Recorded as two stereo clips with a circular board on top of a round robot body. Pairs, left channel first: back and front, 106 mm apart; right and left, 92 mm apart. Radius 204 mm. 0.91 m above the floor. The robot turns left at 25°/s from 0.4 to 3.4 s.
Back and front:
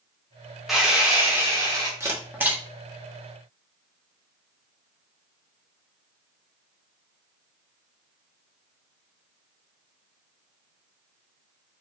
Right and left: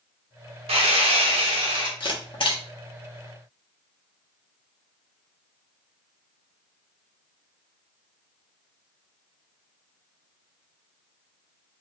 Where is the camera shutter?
60° right, 1.2 m; by 2.6 s 75° right, 1.2 m.